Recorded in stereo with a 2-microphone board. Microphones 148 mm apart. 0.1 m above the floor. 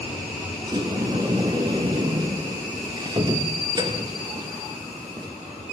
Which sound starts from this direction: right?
A sliding door, at 0.7 s.